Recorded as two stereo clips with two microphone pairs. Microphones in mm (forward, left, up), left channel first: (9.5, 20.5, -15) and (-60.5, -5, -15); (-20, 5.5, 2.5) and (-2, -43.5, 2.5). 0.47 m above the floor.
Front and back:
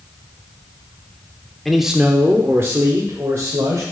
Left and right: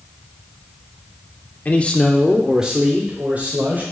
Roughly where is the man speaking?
Left.